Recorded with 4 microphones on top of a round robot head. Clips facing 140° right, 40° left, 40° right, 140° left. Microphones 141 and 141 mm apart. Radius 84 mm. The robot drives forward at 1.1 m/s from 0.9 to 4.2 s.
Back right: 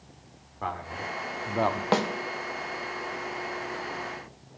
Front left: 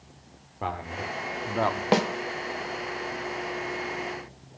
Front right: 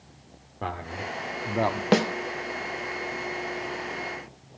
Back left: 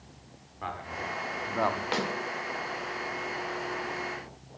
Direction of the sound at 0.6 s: 20° right.